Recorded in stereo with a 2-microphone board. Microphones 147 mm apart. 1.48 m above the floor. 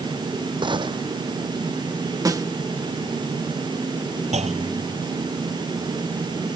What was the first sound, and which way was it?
A gunshot, 35° right (ahead or behind).